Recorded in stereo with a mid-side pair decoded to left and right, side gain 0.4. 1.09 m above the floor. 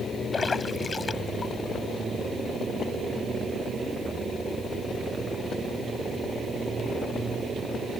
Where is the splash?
35° left.